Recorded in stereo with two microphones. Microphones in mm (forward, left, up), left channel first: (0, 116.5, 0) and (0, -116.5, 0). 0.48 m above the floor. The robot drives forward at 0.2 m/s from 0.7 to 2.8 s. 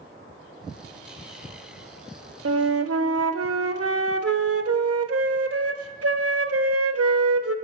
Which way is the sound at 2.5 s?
85° right.